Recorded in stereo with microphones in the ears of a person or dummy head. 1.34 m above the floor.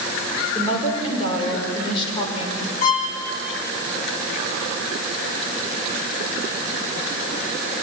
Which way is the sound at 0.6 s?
30° left (ahead or behind).